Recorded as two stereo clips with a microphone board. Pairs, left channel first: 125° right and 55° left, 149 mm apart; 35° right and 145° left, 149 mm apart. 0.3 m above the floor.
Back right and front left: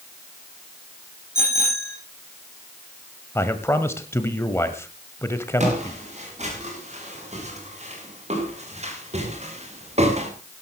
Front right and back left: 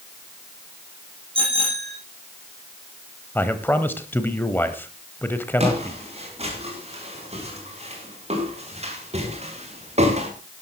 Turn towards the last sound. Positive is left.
turn(degrees=100)